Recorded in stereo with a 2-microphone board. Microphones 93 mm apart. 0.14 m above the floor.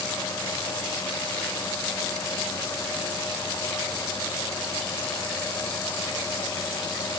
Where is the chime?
I don't hear a chime.